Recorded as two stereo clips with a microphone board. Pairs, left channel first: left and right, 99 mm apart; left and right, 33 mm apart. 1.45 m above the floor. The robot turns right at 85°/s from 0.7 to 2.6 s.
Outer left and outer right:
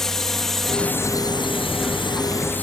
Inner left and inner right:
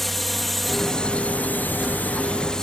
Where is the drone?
5° left (ahead or behind); by 2.6 s 15° left (ahead or behind).